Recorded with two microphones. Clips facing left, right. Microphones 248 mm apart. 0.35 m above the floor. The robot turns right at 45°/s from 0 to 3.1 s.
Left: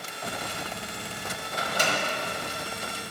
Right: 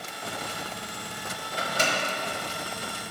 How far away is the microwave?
About 1.8 m.